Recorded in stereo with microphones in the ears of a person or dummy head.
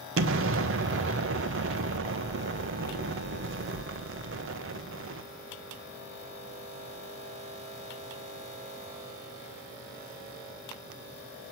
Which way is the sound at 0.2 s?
65° right (ahead or behind).